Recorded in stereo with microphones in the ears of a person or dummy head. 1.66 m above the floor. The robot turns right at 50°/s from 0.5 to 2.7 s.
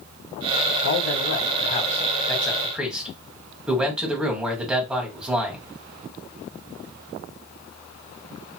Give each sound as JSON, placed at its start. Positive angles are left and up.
{"t": 0.8, "sound": "a man speaking", "azimuth_deg": 90, "distance_m": 1.7}